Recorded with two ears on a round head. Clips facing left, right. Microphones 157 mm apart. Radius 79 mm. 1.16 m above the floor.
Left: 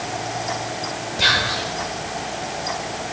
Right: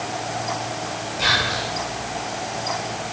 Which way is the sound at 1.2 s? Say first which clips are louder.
Even; 50° left (ahead or behind).